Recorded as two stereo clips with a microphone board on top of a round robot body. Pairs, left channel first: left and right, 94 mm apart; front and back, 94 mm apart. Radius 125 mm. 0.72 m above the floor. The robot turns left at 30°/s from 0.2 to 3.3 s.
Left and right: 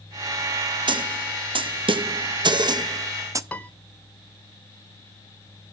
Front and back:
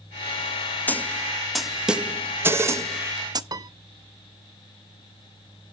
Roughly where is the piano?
Behind.